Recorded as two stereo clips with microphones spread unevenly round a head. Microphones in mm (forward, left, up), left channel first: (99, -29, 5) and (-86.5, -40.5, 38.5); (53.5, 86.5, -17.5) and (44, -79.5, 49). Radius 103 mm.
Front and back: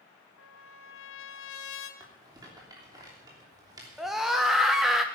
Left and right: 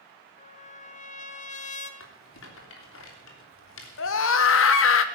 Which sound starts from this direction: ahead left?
A trumpet, at 0.4 s.